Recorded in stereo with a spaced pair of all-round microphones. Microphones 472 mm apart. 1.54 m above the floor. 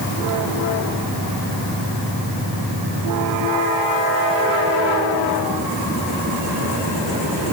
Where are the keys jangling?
No keys jangling in this recording.